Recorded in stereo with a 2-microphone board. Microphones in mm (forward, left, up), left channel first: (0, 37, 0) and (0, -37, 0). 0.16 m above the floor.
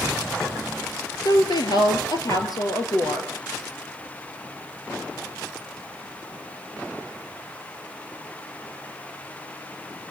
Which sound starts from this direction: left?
A woman speaking, at 1.2 s.